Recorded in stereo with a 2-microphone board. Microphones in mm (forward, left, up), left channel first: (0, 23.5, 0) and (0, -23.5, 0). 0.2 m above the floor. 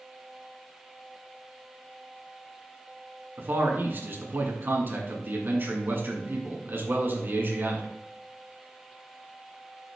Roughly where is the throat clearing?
No throat clearing in this recording.